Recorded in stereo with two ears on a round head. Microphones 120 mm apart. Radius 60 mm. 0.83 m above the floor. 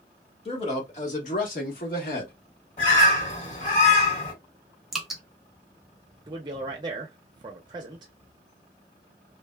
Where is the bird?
55° left (ahead or behind), 1.6 m.